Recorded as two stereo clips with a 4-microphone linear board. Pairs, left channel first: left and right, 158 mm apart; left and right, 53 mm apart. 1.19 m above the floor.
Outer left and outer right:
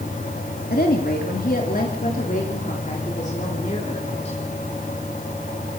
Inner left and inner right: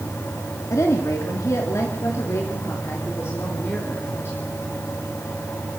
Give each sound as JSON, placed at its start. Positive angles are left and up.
{"t": 0.7, "sound": "a woman speaking", "side_deg": 75, "distance_m": 2.5}